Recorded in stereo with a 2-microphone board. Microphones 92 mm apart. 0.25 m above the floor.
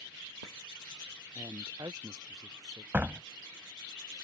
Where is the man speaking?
45° right (ahead or behind).